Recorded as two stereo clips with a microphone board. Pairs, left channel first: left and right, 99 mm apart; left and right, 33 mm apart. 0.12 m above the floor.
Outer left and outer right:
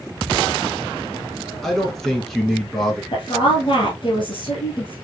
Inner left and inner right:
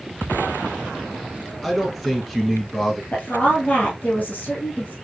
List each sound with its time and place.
1.6 s a man speaking: 5° left (ahead or behind), 1.6 m
3.1 s a woman speaking: 55° left (ahead or behind), 1.9 m